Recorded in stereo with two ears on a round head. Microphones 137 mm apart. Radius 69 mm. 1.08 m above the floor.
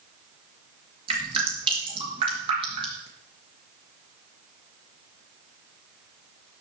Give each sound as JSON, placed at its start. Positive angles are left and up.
{"t": 1.1, "sound": "dripping", "side_deg": -35, "distance_m": 3.5}